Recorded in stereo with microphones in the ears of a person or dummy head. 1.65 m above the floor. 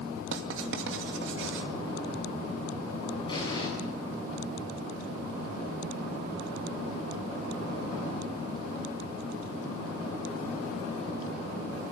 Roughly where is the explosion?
Left.